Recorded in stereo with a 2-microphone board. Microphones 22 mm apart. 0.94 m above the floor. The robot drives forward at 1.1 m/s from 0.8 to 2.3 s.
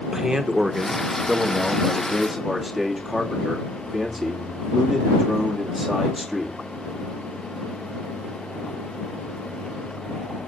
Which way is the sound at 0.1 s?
25° right (ahead or behind).